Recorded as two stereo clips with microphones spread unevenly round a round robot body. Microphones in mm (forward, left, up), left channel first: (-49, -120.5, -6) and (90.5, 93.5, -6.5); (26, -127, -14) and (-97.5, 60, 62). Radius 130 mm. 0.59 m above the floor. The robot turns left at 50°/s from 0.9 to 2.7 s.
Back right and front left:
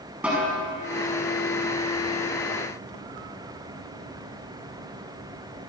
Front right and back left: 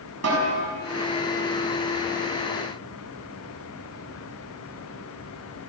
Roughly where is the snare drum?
Behind left.